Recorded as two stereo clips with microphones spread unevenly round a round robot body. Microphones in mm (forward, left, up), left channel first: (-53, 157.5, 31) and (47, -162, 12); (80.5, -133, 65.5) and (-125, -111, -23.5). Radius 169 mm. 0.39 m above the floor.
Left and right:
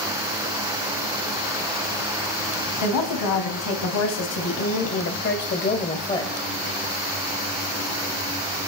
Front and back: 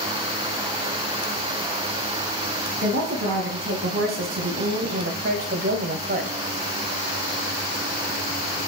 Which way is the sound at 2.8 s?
140° left.